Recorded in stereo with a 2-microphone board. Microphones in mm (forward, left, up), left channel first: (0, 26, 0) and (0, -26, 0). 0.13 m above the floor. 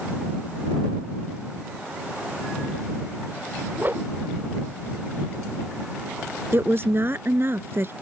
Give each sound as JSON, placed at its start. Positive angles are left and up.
{"t": 3.8, "sound": "a whoosh", "side_deg": -35}
{"t": 6.5, "sound": "a woman speaking", "side_deg": -45}